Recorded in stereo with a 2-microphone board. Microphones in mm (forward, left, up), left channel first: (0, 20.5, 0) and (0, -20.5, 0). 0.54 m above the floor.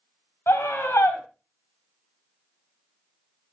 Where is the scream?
75° left (ahead or behind), 2.5 m.